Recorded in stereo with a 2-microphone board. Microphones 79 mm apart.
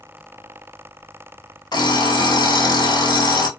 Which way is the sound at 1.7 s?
60° left (ahead or behind).